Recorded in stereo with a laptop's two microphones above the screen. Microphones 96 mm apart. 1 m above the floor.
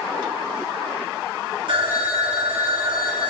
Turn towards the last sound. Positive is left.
turn(degrees=-55)  # may be behind; listen again after turning